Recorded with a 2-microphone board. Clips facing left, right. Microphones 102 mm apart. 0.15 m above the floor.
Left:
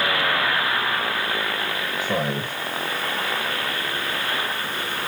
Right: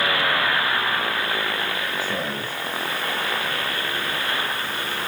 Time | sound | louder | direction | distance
2.0 | a man speaking | left 3 dB | 65° left (ahead or behind) | 5 m